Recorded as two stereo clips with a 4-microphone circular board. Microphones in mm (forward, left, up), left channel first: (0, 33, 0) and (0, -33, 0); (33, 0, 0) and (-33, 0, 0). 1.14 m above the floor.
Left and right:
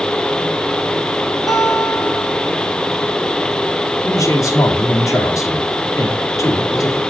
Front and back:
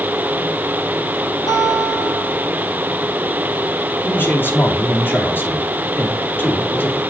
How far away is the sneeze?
I don't hear a sneeze.